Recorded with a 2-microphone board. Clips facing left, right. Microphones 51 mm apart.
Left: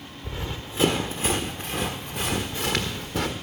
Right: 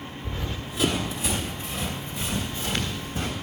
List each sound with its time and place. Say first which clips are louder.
0.2 s running footsteps: left 1 dB; 15° left (ahead or behind), 1.5 m; by 3.3 s 75° left (ahead or behind), 2 m